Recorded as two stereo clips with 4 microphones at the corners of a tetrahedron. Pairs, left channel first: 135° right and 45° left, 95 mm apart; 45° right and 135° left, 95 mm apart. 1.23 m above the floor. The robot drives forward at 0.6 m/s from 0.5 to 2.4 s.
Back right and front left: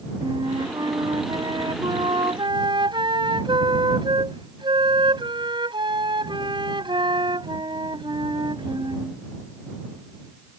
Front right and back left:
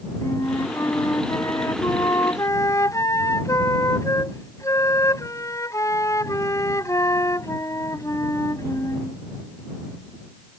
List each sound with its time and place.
0.2 s a flute: 10° left